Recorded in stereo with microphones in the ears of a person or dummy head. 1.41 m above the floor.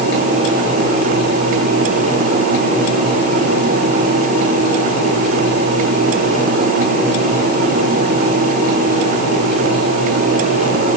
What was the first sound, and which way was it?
Only background noise.